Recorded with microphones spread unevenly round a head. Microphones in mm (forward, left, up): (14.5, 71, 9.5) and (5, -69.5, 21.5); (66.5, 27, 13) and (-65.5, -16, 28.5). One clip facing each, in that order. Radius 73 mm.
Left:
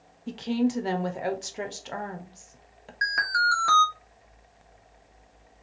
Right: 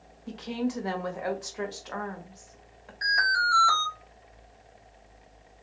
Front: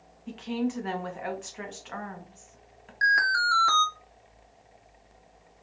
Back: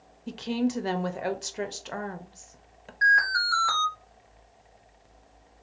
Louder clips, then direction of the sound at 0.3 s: Left 5 dB, back 2 dB; 150° left.